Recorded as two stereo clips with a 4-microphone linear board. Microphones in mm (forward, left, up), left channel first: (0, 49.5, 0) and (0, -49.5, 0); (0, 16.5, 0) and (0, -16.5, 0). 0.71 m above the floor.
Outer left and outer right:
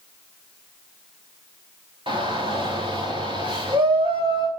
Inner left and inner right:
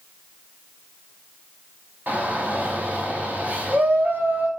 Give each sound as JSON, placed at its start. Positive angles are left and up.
{"t": 2.1, "sound": "a shout", "side_deg": -60, "distance_m": 3.5}